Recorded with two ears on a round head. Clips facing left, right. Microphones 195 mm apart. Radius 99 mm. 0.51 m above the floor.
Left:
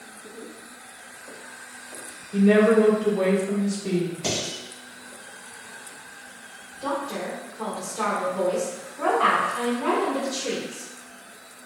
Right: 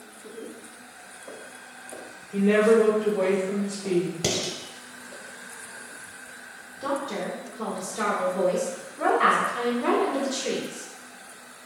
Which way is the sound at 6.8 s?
20° right (ahead or behind).